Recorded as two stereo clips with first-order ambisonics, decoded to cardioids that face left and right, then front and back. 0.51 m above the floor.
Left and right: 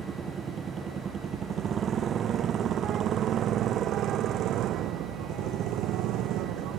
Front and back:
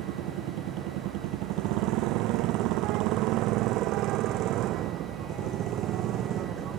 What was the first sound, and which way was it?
A motorcycle, 155° right.